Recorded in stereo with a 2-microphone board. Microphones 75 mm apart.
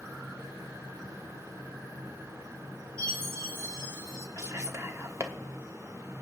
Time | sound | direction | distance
3.0 | a chime | 40° right (ahead or behind) | 4 m
4.4 | whispering | 40° right (ahead or behind) | 1.4 m